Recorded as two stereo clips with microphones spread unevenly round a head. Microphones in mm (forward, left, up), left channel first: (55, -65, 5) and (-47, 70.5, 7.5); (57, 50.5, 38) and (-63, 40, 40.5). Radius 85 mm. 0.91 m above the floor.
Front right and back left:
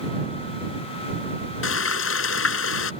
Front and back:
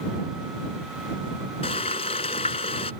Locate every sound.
1.6 s frying: 50° right